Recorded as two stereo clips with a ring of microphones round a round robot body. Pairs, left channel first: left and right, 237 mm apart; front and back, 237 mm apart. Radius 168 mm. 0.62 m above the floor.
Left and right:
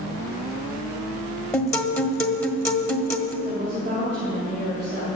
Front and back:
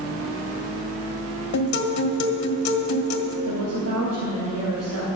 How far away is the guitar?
About 1.8 m.